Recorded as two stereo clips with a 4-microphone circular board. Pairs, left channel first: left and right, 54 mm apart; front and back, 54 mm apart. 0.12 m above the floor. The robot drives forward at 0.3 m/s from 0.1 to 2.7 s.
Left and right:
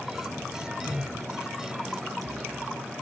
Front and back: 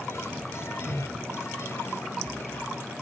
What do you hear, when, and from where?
0.8 s a whoosh: 110° left, 1.6 m